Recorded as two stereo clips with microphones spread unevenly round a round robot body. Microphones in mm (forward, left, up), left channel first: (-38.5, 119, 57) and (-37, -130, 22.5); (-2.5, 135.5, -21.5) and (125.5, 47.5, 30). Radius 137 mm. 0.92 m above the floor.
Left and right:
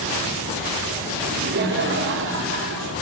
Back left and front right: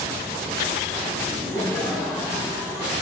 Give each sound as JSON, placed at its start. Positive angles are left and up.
{"t": 1.2, "sound": "laughter", "azimuth_deg": -140, "distance_m": 3.5}